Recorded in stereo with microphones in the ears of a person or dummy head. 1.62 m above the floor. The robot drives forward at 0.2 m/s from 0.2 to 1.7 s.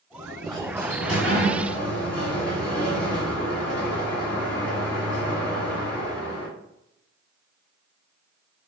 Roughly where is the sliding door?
Centre.